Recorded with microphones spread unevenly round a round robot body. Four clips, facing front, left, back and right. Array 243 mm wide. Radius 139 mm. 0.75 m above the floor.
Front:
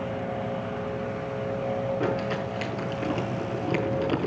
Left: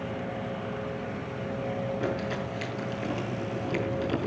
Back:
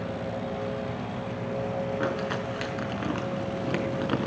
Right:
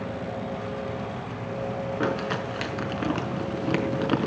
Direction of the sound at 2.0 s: 85° right.